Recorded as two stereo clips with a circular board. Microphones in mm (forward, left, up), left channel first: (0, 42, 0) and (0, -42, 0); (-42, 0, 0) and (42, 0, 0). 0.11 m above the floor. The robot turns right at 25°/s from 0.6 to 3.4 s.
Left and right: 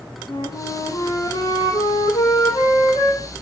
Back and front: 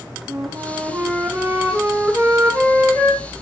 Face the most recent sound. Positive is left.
turn(degrees=115)